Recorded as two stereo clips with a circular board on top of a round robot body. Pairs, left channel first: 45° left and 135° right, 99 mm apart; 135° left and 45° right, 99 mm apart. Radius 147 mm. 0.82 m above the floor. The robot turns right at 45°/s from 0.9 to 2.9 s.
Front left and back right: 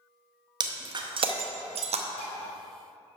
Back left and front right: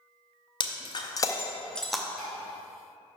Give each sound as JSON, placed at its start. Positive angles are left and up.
{"t": 0.6, "sound": "breaking glass", "azimuth_deg": 180, "distance_m": 0.7}
{"t": 2.2, "sound": "dishes clattering", "azimuth_deg": 45, "distance_m": 2.5}